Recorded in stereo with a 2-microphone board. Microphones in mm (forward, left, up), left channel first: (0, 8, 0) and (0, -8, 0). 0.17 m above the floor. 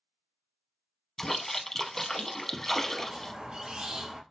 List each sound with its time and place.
1.2 s a splash: 25° left (ahead or behind), 0.5 m
3.0 s a squeak: 65° right (ahead or behind), 1.8 m